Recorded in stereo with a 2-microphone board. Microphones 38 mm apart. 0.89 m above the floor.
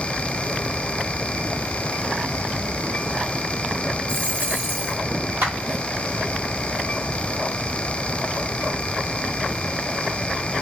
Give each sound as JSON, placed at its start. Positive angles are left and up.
{"t": 4.1, "sound": "a dropped coin", "side_deg": -60, "distance_m": 4.0}
{"t": 5.4, "sound": "a clap", "side_deg": -75, "distance_m": 4.0}